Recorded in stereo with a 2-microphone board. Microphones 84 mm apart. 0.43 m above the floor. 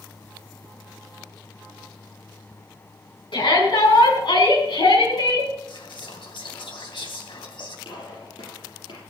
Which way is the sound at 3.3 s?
75° left (ahead or behind).